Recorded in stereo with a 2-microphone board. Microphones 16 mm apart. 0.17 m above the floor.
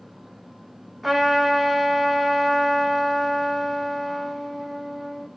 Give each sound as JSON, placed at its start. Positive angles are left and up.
{"t": 1.0, "sound": "a trumpet", "side_deg": -10, "distance_m": 1.1}